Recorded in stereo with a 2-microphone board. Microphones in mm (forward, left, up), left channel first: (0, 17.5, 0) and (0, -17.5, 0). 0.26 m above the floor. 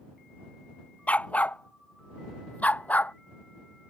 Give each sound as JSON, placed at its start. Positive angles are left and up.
{"t": 1.1, "sound": "a dog barking", "side_deg": 40}